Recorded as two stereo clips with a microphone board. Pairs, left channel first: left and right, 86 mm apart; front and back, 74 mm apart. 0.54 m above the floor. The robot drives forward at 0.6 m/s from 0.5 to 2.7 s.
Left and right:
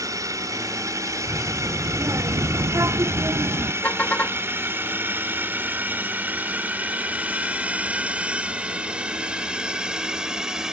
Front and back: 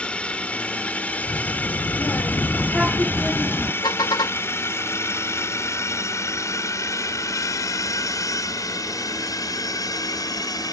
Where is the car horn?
20° left.